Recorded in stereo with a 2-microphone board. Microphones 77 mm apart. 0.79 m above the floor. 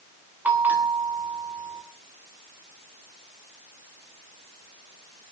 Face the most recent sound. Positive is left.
turn(degrees=-25)  # may be behind; listen again after turning